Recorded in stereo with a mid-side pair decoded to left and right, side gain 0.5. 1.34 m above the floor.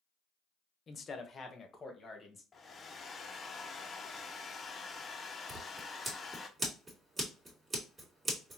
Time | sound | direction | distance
0.9 | a man speaking | 40° left | 0.7 m
2.5 | a hair dryer | 35° left | 0.7 m
5.5 | scissors | 30° right | 2 m